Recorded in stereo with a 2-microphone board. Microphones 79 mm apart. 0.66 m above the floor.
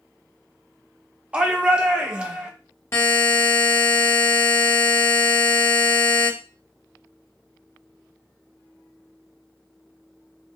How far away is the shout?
About 0.6 m.